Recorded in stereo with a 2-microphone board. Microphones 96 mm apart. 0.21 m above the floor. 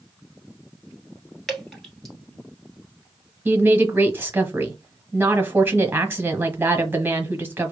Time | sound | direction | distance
1.5 | dripping | 5° left (ahead or behind) | 1.4 m
3.5 | a woman speaking | 20° right (ahead or behind) | 1.1 m